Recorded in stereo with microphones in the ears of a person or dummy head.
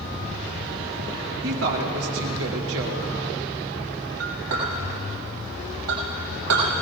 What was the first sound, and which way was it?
A woman speaking, 85° right.